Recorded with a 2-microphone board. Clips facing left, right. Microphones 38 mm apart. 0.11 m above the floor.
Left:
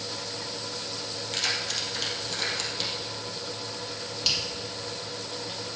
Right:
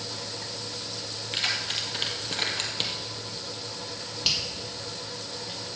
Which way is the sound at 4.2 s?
20° right (ahead or behind).